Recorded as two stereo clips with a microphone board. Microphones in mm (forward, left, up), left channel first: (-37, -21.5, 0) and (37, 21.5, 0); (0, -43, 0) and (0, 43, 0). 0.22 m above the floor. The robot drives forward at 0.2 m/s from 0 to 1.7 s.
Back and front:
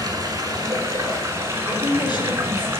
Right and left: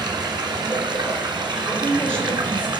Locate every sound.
0.0 s running water: 70° left, 1.3 m; by 2.8 s 85° left, 1.2 m
1.7 s a woman speaking: 165° right, 2.5 m